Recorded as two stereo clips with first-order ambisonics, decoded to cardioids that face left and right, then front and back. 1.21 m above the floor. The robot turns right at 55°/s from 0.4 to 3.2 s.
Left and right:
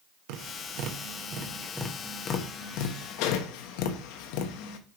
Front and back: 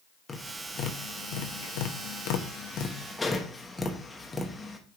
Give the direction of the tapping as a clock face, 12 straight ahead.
2 o'clock.